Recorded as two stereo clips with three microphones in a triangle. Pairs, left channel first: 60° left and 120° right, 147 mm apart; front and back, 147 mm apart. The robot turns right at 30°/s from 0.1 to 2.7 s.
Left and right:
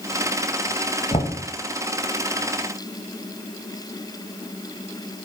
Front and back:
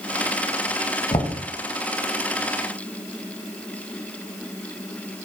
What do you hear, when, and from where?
1.1 s knocking: 35° left, 1.2 m; by 1.4 s 40° left, 1.2 m